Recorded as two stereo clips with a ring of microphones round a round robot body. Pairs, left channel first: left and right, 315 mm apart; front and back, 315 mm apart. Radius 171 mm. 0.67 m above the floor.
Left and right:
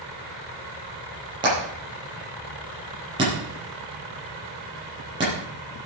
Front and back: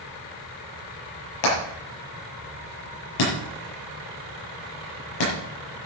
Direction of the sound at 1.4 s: 10° right.